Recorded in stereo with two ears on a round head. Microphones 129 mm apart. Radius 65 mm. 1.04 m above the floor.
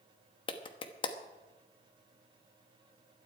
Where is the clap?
35° left (ahead or behind), 1.1 m.